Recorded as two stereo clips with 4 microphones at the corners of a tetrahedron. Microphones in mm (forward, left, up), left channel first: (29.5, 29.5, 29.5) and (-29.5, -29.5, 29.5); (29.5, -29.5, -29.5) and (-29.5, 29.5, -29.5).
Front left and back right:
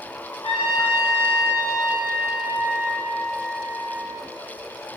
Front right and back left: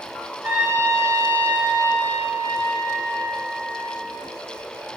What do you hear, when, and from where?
0.4 s a trumpet: 65° left, 1.3 m